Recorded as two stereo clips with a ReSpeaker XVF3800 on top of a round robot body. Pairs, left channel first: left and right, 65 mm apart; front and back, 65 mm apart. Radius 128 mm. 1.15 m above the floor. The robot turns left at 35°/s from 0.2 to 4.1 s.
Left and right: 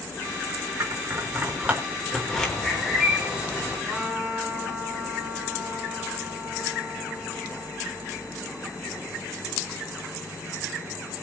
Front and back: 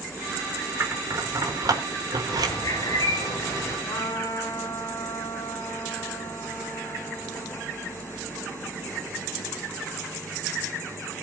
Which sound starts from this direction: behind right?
Scissors, at 0.8 s.